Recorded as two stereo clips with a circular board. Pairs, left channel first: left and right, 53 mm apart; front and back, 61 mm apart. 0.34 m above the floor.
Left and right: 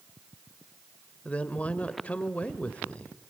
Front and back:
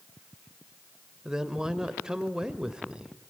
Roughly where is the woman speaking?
Behind left.